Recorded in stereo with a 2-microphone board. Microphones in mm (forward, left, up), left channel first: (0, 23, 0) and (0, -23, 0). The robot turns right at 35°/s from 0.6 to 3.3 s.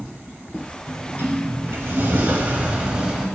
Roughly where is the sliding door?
Right.